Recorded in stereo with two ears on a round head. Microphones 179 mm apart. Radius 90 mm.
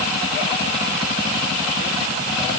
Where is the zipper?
No zipper in this recording.